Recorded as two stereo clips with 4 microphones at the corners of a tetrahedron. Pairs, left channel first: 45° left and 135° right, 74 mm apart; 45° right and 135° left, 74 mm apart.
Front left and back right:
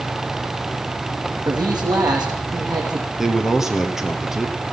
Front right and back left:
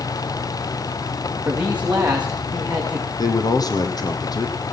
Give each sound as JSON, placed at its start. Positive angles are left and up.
{"t": 1.4, "sound": "a man speaking", "azimuth_deg": -150, "distance_m": 7.0}
{"t": 3.2, "sound": "a man speaking", "azimuth_deg": -50, "distance_m": 2.5}